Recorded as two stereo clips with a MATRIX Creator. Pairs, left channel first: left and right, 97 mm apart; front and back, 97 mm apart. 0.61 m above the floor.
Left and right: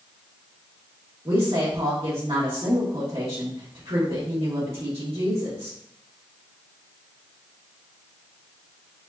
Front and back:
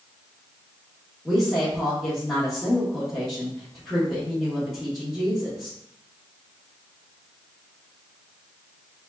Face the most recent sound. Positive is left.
turn(degrees=-80)